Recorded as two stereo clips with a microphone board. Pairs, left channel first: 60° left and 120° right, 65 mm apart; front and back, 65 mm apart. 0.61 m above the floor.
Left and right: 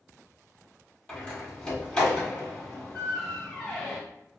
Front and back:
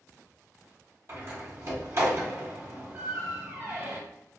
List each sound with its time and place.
1.1 s a door slam: 135° left, 1.3 m